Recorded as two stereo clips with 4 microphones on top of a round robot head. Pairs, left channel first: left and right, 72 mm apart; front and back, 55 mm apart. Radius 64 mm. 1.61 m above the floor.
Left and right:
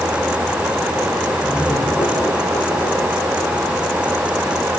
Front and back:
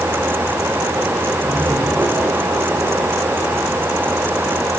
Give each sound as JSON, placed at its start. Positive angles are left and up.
{"t": 1.4, "sound": "laughter", "azimuth_deg": 150, "distance_m": 6.0}